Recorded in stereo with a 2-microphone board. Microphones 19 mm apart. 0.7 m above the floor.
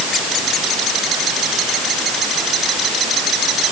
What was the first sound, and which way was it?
Only background noise.